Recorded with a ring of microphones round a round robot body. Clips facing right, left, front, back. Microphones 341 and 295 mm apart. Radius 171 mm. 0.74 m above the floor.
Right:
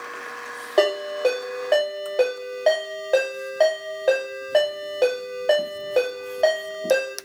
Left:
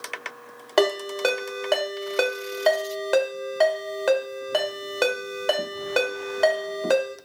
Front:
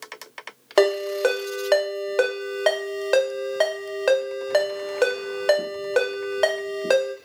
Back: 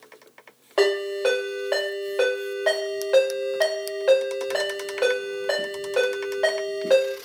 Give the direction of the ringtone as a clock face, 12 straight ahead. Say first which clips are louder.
Right 1 dB, front 2 dB; 11 o'clock.